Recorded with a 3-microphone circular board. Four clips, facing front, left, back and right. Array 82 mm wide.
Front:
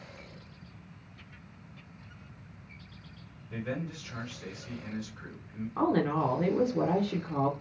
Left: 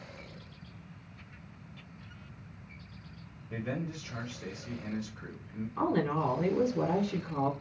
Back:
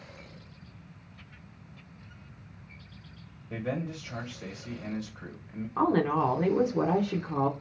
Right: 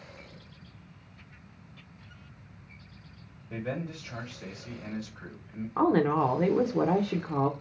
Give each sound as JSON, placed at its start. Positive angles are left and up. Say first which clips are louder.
{"t": 3.5, "sound": "a man speaking", "louder": "right 1 dB, back 3 dB", "azimuth_deg": -155, "distance_m": 1.4}
{"t": 5.8, "sound": "a woman speaking", "louder": "right 6 dB, back 2 dB", "azimuth_deg": -105, "distance_m": 0.6}